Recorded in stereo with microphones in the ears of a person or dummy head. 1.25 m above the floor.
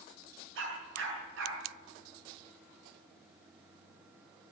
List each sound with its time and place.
0.6 s a dog barking: 85° right, 6.5 m